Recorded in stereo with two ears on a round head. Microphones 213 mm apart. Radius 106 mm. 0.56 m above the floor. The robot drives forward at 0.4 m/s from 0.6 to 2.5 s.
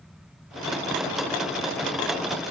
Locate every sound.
Only background noise.